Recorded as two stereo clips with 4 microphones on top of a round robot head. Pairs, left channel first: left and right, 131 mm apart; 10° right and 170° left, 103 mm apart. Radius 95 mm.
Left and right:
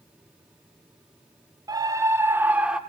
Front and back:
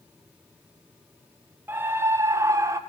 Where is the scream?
130° right, 1.5 m; by 2.8 s 170° right, 1.4 m.